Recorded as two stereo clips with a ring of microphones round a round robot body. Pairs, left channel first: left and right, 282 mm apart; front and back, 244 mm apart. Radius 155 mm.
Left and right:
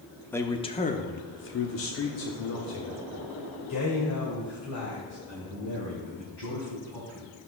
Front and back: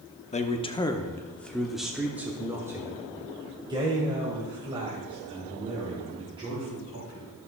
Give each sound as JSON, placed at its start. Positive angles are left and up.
{"t": 0.3, "sound": "a man speaking", "azimuth_deg": 15, "distance_m": 0.8}